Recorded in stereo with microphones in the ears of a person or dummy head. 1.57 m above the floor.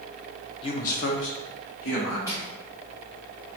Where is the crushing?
15° left (ahead or behind), 1.9 m.